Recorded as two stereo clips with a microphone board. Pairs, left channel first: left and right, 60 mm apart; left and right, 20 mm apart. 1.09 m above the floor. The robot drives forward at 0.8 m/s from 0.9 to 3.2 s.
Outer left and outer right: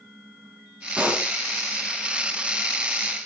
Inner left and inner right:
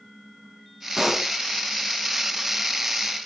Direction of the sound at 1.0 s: 25° right (ahead or behind).